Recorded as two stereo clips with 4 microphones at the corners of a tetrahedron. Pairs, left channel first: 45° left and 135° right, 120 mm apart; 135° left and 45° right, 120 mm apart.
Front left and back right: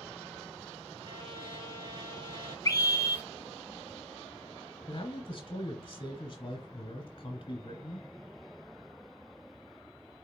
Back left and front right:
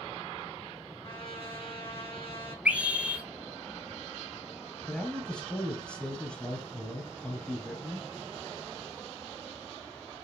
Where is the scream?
25° left, 1.7 m.